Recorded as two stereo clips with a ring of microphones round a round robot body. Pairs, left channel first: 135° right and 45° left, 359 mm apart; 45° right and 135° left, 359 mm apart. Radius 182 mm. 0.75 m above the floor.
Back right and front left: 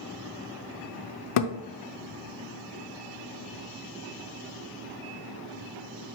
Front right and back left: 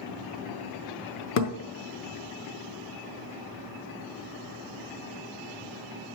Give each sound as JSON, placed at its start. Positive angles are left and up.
{"t": 1.4, "sound": "a thud", "azimuth_deg": -100, "distance_m": 0.7}